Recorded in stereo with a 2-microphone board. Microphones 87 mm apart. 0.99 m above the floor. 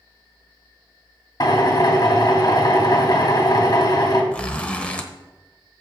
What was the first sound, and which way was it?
A drill, 45° left (ahead or behind).